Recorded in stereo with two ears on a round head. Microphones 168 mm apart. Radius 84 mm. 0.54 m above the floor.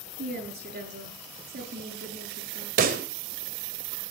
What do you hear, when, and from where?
0.2 s a woman speaking: 55° right (ahead or behind), 10 m
2.8 s a pop: 50° right (ahead or behind), 2 m